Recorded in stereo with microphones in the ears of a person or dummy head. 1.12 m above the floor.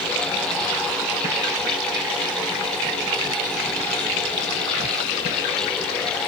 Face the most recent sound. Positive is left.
No sound to turn to.